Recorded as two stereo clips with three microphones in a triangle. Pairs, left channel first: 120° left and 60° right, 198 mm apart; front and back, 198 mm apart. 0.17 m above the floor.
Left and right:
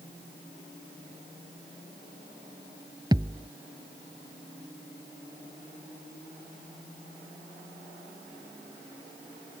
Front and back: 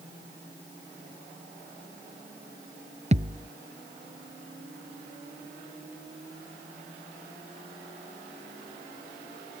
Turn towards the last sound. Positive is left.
turn(degrees=-125)